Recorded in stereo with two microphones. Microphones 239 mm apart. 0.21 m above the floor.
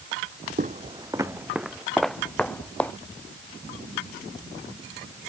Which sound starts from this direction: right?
Footsteps, at 0.6 s.